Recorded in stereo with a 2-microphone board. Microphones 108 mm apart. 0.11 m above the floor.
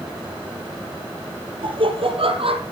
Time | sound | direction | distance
1.6 | laughter | 55° right (ahead or behind) | 2.5 m